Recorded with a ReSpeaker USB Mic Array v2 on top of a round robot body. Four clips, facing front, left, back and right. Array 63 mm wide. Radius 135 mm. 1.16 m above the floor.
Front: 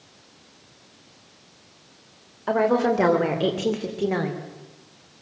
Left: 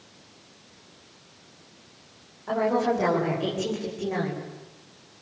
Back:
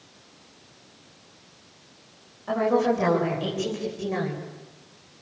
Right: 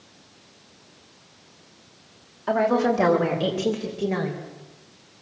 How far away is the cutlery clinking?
No cutlery clinking in this recording.